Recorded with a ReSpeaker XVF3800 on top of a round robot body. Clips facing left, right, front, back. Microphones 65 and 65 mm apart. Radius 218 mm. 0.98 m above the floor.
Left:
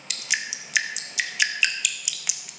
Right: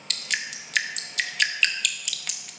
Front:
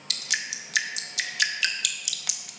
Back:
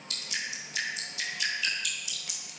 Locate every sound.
0.1 s dripping: 10° left, 0.8 m